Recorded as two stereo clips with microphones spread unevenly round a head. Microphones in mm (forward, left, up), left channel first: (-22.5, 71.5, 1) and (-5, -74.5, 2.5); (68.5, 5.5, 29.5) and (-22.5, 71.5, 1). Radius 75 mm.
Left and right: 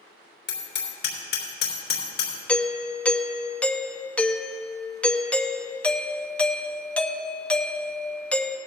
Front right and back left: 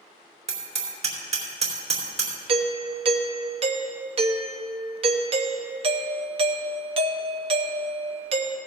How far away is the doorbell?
About 0.7 m.